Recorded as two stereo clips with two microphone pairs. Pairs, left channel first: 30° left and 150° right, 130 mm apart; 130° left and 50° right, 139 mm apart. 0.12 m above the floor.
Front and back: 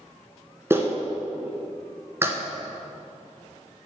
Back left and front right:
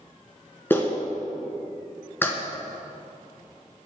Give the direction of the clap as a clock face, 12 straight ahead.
6 o'clock.